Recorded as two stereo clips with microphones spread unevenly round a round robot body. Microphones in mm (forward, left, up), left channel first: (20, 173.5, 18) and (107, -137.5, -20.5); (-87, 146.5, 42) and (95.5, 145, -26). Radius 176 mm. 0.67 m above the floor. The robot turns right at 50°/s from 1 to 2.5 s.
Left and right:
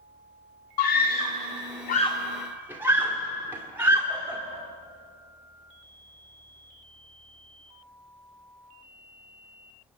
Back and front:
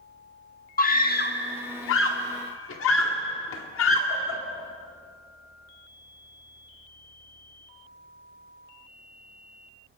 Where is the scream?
130° left, 1.8 m; by 4.4 s 155° right, 1.8 m.